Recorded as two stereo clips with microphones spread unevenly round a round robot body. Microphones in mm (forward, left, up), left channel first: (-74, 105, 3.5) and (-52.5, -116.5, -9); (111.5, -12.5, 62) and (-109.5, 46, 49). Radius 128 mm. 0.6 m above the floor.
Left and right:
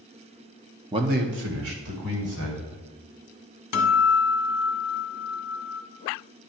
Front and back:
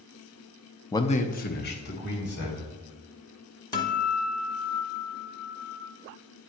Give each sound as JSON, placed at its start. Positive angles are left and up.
{"t": 0.9, "sound": "a man speaking", "azimuth_deg": -80, "distance_m": 0.6}
{"t": 3.7, "sound": "a guitar", "azimuth_deg": 60, "distance_m": 1.0}